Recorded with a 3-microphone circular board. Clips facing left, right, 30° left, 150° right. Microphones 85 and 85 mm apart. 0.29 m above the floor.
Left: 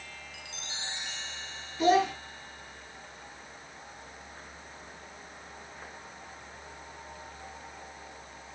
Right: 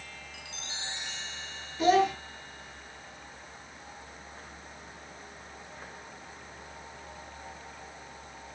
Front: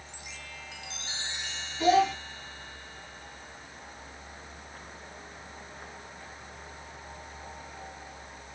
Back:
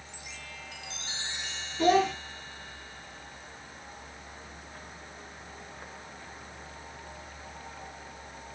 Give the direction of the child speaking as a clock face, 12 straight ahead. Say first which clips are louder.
Right 1 dB, front 1 dB; 6 o'clock.